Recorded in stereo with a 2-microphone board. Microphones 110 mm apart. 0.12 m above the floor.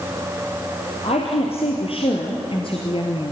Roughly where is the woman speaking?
Left.